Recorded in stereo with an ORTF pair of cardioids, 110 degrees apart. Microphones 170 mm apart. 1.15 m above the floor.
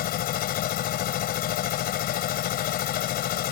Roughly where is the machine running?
Ahead left.